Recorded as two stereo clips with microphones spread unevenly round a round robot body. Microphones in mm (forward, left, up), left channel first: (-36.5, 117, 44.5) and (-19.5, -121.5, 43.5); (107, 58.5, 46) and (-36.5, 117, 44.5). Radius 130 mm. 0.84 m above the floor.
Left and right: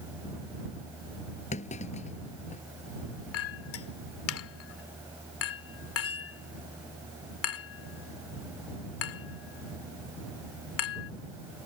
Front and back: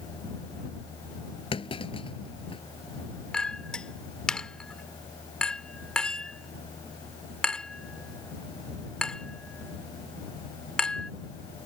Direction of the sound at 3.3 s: 60° left.